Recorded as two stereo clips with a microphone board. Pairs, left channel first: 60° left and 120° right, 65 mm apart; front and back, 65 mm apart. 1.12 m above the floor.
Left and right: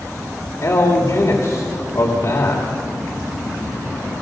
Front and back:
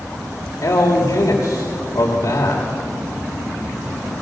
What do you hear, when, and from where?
0.6 s a man speaking: 30° left, 2.5 m